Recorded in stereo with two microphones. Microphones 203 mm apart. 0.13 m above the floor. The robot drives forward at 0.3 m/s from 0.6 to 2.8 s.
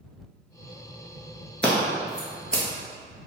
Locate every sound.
1.6 s scissors: 5° left (ahead or behind), 0.7 m